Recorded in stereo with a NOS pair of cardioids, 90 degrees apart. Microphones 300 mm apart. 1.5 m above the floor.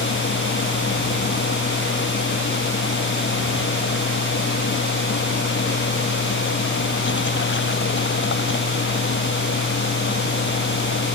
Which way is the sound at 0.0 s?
40° left.